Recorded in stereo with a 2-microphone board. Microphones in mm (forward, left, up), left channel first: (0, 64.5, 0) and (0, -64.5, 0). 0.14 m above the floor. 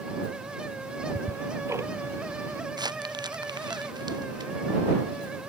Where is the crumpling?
30° right (ahead or behind).